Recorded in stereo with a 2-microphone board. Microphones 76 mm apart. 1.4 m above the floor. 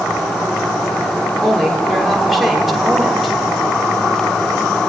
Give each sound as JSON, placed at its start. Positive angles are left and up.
{"t": 1.4, "sound": "a woman speaking", "side_deg": 0, "distance_m": 5.5}